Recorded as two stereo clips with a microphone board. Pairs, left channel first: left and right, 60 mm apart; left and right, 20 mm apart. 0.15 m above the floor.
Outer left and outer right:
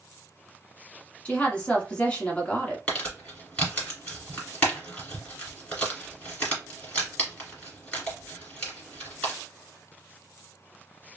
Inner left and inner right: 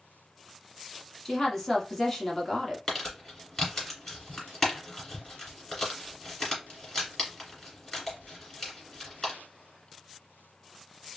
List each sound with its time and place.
1.2 s a woman speaking: 20° left (ahead or behind), 1.2 m
2.9 s crumpling: 20° left (ahead or behind), 1.9 m